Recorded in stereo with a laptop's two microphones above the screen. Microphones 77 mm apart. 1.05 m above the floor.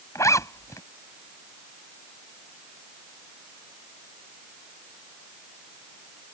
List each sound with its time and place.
0.1 s a zipper: 40° left (ahead or behind)